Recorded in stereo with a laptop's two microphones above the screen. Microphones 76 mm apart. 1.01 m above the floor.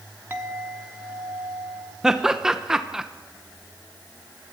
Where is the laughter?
5° right (ahead or behind), 0.8 m.